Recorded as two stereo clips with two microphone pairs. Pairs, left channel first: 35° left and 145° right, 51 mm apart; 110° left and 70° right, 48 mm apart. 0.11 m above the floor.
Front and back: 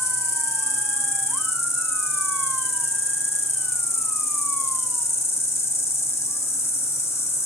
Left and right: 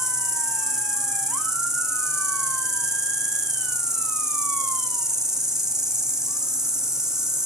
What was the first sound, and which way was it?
An insect, 5° left.